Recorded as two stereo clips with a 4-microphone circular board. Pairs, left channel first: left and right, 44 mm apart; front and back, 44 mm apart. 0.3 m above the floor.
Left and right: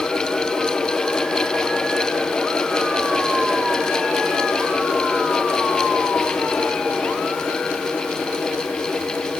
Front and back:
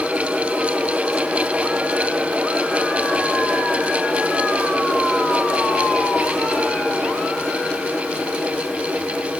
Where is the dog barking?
No dog barking in this recording.